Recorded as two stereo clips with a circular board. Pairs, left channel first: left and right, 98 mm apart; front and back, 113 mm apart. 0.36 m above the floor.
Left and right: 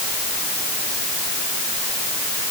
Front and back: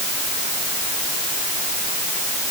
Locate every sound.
Only background noise.